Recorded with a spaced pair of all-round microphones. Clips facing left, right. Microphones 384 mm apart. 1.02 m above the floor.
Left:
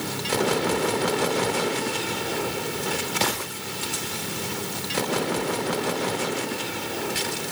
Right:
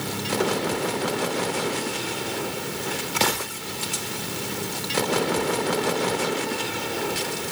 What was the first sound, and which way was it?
Only background noise.